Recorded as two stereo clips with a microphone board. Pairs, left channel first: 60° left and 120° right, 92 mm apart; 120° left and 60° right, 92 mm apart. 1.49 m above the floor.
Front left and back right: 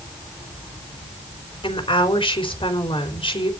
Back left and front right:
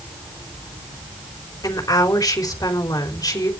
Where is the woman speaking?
70° left, 4 m.